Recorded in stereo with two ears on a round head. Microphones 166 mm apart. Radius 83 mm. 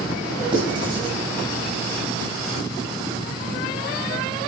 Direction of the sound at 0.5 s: 25° right (ahead or behind).